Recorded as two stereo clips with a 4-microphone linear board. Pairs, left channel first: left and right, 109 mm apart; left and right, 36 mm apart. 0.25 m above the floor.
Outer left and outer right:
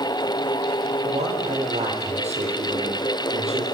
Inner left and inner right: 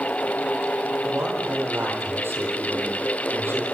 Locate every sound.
1.0 s a man speaking: 80° right, 9 m; by 3.6 s 75° right (ahead or behind), 9.5 m